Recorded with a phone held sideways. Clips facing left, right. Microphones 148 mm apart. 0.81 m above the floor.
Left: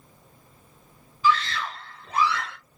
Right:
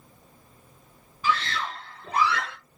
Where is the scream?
60° right (ahead or behind), 1.3 m; by 2.6 s 75° right (ahead or behind), 2 m.